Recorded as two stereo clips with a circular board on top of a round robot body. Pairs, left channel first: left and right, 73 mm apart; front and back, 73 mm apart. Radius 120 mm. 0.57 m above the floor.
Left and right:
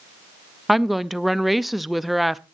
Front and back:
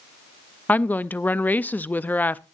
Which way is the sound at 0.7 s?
Straight ahead.